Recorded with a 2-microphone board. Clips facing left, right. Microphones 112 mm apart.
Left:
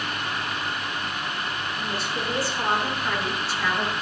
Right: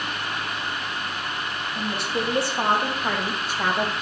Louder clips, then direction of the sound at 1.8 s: Right 6 dB; 60° right (ahead or behind).